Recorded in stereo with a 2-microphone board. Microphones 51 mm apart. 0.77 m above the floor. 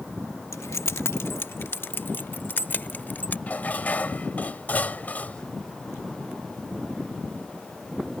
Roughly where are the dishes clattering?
Left.